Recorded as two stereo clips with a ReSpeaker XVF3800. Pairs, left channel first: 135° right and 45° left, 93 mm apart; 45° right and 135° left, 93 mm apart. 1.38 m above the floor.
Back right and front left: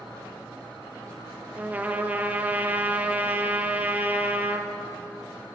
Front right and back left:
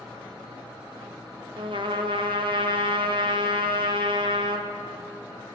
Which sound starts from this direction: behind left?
A trumpet, at 1.6 s.